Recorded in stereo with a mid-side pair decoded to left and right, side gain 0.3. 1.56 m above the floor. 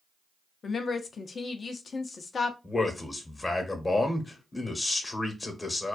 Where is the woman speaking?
55° left, 0.5 m.